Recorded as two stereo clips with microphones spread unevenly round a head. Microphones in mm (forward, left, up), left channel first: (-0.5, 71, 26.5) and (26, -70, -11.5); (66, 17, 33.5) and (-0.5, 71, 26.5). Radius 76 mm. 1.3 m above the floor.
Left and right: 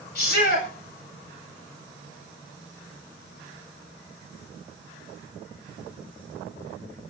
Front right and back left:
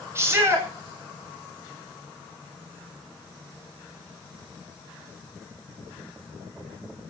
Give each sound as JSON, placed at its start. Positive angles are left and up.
{"t": 0.1, "sound": "a shout", "azimuth_deg": 85, "distance_m": 6.0}